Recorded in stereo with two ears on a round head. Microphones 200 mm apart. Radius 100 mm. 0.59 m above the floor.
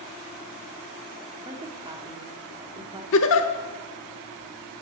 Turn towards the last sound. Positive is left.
turn(degrees=65)  # may be behind; listen again after turning